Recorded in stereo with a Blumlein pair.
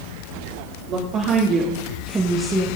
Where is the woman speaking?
35° right, 3 m; by 2.7 s straight ahead, 1.7 m.